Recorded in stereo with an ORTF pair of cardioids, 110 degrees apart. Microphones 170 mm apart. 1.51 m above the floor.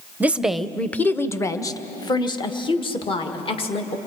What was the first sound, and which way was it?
A woman speaking, 10° right.